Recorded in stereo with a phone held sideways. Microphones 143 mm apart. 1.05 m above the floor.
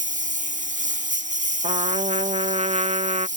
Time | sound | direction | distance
0.0 | a lawn mower | 65° right (ahead or behind) | ?
1.6 | a trumpet | 50° right (ahead or behind) | ?